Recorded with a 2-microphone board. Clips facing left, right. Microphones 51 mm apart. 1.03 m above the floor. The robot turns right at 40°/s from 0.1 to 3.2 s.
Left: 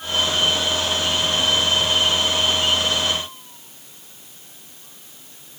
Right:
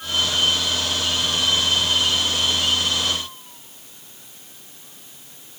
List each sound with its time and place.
Only background noise.